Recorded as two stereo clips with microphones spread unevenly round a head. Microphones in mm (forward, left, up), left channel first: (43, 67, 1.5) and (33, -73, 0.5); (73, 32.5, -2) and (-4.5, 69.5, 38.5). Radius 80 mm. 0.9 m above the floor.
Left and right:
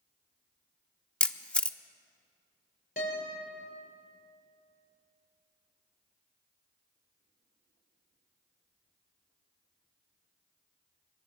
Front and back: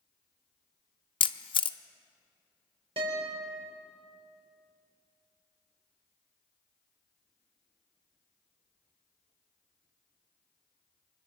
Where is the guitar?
135° left, 4.5 m.